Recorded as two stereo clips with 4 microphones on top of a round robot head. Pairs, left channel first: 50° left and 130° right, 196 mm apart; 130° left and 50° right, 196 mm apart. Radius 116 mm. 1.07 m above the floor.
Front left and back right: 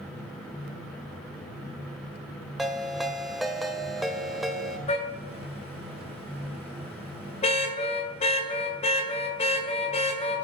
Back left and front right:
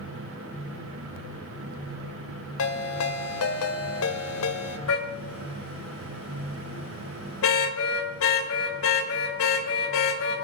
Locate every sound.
2.6 s a ringtone: 140° left, 1.8 m
4.9 s a car horn: 110° left, 2 m